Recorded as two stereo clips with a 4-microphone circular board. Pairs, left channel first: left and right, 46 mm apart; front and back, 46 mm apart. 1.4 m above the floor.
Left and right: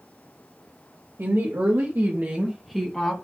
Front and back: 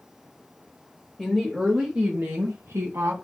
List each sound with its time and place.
1.2 s a woman speaking: 90° right, 1.6 m; by 3.1 s 160° left, 1.3 m